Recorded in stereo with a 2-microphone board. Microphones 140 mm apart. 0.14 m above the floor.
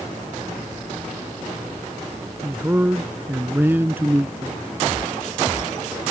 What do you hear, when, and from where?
2.4 s a man speaking: 15° right (ahead or behind)